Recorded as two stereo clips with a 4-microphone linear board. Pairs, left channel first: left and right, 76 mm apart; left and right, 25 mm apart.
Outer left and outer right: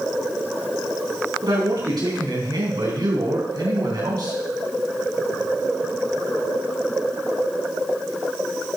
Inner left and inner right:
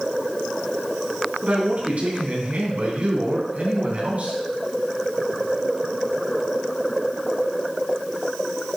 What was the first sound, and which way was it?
A man speaking, 65° right (ahead or behind).